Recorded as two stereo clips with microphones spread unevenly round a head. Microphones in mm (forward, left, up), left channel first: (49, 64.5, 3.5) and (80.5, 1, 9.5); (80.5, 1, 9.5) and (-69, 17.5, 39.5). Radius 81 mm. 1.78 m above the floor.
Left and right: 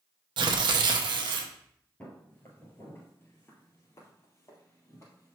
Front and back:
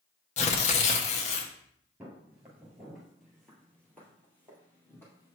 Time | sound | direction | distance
0.4 | tearing paper | 60° right | 0.8 m
2.0 | footsteps | 155° left | 1.8 m